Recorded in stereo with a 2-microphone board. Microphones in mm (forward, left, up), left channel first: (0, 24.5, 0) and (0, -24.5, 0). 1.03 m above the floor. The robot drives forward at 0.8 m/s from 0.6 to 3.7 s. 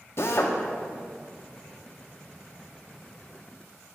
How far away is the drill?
About 0.7 m.